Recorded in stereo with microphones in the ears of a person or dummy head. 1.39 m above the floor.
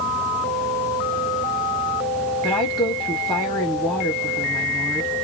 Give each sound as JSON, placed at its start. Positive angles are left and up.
{"t": 2.4, "sound": "a woman speaking", "side_deg": 10, "distance_m": 1.3}